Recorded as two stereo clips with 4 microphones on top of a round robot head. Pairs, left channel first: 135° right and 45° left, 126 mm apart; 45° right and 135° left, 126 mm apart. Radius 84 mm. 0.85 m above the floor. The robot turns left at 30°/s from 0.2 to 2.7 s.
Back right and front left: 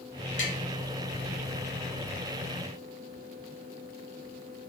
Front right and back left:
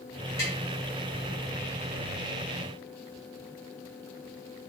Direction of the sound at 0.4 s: 110° right.